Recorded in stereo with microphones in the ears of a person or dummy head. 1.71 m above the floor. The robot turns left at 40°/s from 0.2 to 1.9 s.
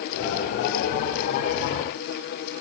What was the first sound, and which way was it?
Only background noise.